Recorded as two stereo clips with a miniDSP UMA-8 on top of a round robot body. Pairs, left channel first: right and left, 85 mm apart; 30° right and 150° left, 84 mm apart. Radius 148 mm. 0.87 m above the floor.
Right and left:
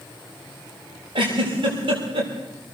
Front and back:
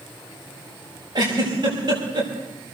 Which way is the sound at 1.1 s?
115° left.